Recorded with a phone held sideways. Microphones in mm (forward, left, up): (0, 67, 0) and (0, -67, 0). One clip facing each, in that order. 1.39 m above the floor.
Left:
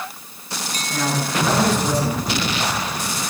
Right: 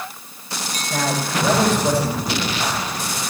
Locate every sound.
0.9 s a man speaking: 65° right (ahead or behind), 7.5 m